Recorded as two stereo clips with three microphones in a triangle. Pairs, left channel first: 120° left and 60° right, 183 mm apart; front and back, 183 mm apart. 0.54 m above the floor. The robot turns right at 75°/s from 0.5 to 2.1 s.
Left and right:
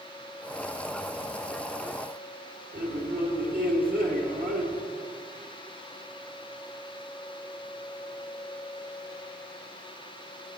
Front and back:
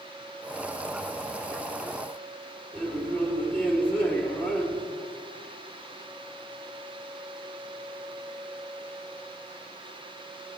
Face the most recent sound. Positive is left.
turn(degrees=-80)